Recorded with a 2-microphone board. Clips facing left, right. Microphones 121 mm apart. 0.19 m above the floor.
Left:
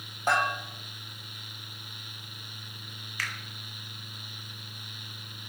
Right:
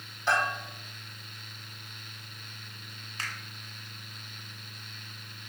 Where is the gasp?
I don't hear a gasp.